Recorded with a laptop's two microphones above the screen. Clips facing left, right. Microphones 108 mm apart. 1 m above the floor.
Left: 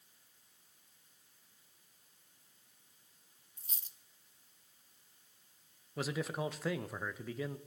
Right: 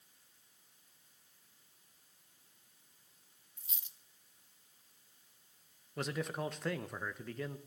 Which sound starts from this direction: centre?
A man speaking, at 6.0 s.